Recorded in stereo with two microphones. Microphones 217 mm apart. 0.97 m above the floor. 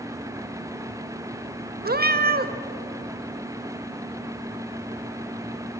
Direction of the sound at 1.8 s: 45° right (ahead or behind).